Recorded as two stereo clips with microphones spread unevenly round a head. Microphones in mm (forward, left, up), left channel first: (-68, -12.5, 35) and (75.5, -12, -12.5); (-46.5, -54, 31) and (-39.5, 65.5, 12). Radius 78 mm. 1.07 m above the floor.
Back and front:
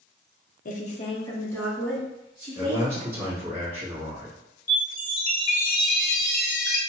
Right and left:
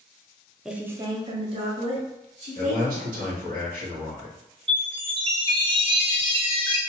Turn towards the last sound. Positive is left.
turn(degrees=135)